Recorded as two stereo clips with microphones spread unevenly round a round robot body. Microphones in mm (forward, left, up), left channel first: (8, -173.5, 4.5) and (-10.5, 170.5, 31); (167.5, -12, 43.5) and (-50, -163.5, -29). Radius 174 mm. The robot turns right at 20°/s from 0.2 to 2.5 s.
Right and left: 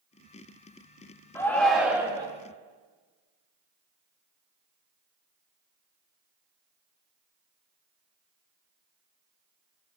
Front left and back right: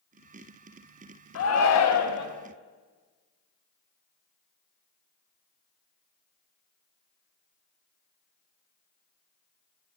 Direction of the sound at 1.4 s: 5° right.